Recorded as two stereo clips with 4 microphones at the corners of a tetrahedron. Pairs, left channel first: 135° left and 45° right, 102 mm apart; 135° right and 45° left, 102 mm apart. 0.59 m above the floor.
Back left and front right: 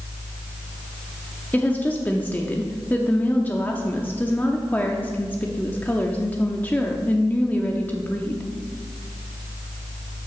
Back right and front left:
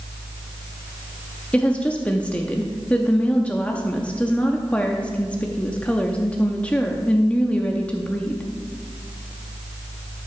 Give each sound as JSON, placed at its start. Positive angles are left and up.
{"t": 1.5, "sound": "a woman speaking", "azimuth_deg": 170, "distance_m": 0.6}